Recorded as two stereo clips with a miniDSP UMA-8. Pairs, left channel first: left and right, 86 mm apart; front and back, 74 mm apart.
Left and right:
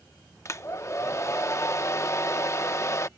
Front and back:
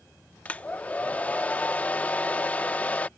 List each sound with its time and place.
0.5 s a hair dryer: 60° left